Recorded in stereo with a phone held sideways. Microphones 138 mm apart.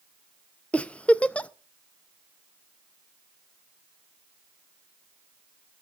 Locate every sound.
0.7 s a giggle: 10° left (ahead or behind), 0.6 m